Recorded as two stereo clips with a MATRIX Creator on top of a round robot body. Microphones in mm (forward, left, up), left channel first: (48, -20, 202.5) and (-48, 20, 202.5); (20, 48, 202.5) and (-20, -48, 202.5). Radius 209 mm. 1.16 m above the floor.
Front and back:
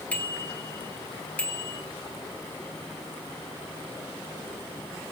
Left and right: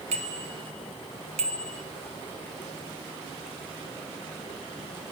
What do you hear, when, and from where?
0.1 s a bicycle bell: 100° right, 3 m